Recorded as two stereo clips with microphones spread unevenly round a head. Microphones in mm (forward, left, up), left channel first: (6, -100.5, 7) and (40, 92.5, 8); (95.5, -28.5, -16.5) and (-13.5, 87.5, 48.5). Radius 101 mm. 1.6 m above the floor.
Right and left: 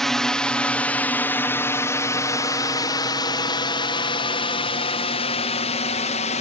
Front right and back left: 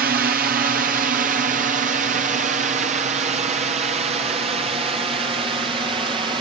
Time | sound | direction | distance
0.0 | a drone | 170° left | ?